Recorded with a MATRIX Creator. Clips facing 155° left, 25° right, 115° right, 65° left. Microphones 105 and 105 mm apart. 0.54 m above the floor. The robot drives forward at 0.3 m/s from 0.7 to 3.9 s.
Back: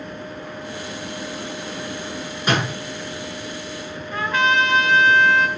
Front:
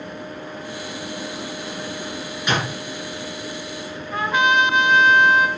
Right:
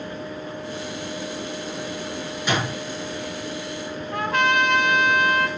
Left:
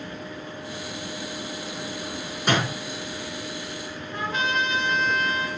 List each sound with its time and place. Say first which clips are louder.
2.5 s a door slam: back 2 dB, left 1 dB; 105° left, 6 m
4.1 s a trumpet: front 1 dB, right 6 dB; 95° right, 3.5 m